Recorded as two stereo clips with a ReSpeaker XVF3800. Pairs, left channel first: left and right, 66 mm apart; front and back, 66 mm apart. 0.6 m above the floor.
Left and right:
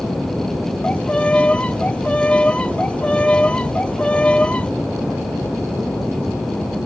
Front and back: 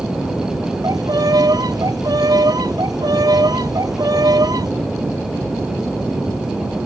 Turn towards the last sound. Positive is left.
turn(degrees=160)